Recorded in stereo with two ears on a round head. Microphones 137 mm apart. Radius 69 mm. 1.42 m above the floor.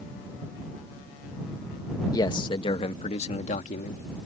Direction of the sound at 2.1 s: 25° left (ahead or behind).